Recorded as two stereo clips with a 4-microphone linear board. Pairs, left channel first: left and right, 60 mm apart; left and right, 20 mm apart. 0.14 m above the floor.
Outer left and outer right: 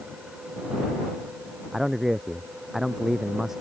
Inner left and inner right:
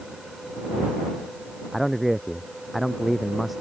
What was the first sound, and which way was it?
A man speaking, 5° right (ahead or behind).